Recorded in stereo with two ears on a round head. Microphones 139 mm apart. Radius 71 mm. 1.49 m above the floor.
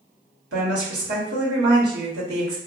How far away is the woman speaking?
About 1.5 m.